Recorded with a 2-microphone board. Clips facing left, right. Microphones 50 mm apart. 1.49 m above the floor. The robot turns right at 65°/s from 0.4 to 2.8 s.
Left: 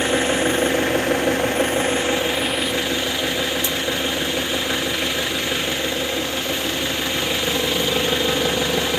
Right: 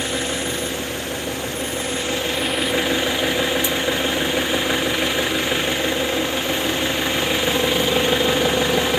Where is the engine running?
45° left, 1.2 m; by 9.0 s 160° right, 1.2 m.